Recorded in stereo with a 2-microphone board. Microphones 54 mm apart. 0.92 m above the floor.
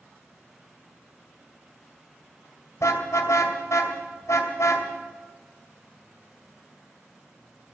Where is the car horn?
65° left (ahead or behind), 2.5 m.